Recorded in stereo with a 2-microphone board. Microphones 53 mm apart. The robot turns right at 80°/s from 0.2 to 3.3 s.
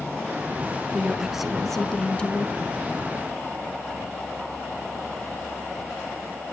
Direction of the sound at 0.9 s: 20° right (ahead or behind).